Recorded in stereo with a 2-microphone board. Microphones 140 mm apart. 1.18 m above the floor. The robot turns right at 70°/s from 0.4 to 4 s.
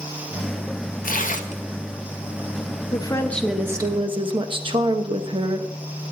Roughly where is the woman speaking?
Behind left.